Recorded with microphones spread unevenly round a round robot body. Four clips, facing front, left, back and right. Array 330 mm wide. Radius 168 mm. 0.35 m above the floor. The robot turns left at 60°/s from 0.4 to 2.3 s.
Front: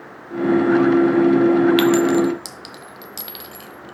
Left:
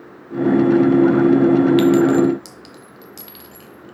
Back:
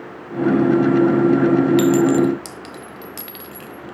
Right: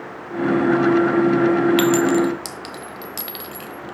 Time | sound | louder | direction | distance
1.8 | a clink | left 3 dB, back 1 dB | 60° right | 0.8 m